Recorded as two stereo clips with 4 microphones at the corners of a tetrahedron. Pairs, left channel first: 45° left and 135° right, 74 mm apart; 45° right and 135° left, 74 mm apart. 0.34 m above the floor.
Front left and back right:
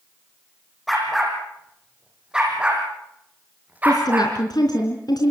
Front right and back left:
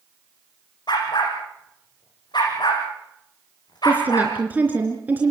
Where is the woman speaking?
70° left, 3.5 m.